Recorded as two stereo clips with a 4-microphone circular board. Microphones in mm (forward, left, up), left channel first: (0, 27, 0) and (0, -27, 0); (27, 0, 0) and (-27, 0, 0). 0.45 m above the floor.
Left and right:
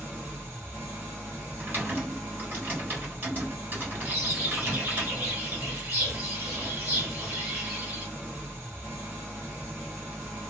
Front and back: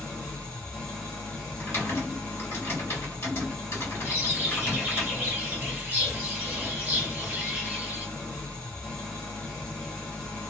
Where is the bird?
125° right, 1.0 m.